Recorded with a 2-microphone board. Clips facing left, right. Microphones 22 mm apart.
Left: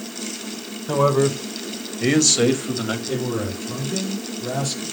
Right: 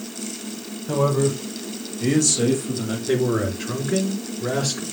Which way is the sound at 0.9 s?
30° left (ahead or behind).